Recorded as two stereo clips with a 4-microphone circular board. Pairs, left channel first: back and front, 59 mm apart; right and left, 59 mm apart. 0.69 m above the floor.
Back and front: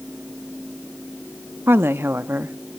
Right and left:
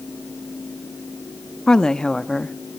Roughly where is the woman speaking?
Ahead.